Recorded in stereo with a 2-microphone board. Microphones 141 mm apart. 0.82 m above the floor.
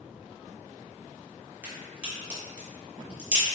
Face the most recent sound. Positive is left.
turn(degrees=-10)  # may be behind; listen again after turning